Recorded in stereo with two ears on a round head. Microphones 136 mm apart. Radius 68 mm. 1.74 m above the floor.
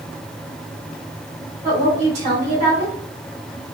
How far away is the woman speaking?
About 1.3 m.